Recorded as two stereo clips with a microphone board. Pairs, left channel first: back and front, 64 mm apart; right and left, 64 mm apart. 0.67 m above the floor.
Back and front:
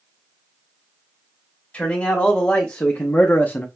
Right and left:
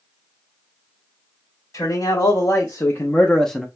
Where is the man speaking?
120° right, 1.3 m; by 3.7 s straight behind, 0.5 m.